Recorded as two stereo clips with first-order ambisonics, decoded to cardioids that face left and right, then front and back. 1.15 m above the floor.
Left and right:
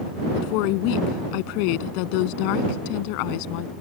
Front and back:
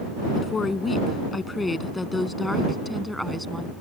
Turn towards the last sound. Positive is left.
turn(degrees=90)